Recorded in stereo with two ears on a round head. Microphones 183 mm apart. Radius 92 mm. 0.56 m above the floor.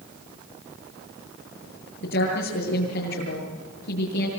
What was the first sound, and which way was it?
A woman speaking, 65° left (ahead or behind).